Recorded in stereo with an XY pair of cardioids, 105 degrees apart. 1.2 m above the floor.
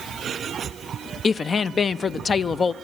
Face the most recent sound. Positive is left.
turn(degrees=35)